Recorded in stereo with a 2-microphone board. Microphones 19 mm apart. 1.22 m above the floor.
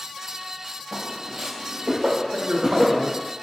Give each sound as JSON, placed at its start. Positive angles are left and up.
{"t": 0.9, "sound": "footsteps", "side_deg": -45, "distance_m": 1.6}
{"t": 2.3, "sound": "a man speaking", "side_deg": -75, "distance_m": 0.8}